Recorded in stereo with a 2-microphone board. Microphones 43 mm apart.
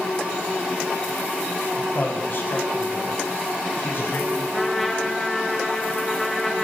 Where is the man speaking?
50° left (ahead or behind), 6 m.